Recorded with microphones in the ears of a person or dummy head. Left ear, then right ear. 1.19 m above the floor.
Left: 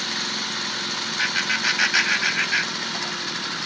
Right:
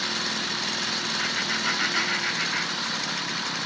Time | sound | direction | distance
1.2 | laughter | 80° left | 3.5 m